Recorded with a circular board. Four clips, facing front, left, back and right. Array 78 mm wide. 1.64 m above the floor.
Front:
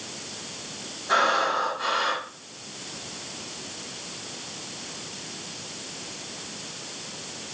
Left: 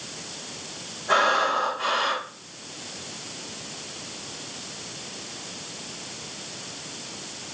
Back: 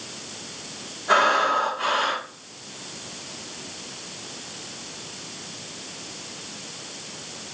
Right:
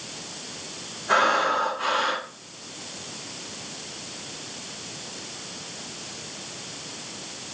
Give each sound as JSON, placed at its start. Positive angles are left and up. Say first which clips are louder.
{"t": 1.1, "sound": "breathing", "louder": "even, back 3 dB", "azimuth_deg": 180, "distance_m": 2.5}